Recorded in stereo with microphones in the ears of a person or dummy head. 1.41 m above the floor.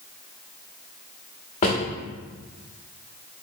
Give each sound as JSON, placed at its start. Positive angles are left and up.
{"t": 1.6, "sound": "a drawer", "side_deg": 30, "distance_m": 1.0}